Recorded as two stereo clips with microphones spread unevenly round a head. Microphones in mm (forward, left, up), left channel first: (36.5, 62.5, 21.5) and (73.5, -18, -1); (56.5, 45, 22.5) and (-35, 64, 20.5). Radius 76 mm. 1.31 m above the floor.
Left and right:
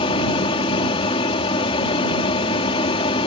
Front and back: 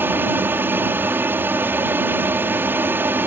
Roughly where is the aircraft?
Left.